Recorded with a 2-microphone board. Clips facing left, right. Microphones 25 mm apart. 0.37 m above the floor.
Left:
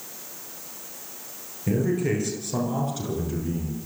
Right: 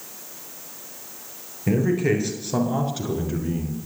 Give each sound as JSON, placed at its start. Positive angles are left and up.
{"t": 1.7, "sound": "a man speaking", "side_deg": -25, "distance_m": 7.5}